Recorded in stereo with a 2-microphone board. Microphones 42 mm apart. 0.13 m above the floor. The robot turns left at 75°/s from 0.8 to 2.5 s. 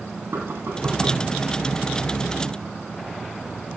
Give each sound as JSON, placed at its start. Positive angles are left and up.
{"t": 0.3, "sound": "knocking", "azimuth_deg": -100, "distance_m": 3.5}